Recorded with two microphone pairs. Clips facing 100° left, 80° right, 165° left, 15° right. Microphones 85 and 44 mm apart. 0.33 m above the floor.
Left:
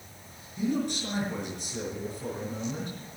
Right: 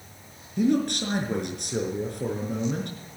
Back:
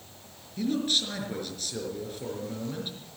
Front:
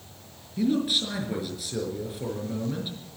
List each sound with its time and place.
0.6 s a man speaking: 95° right, 5 m